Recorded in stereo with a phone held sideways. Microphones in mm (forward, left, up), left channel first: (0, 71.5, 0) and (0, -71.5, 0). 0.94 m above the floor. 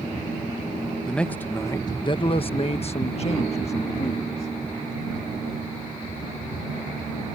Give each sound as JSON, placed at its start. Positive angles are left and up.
{"t": 1.1, "sound": "a man speaking", "side_deg": 5}